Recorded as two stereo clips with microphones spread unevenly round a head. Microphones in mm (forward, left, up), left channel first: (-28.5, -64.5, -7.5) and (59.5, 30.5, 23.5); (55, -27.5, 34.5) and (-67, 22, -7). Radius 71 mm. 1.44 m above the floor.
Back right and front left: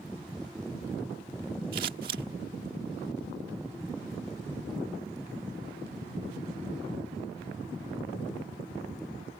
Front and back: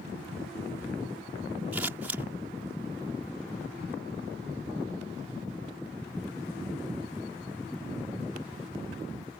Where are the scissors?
80° left.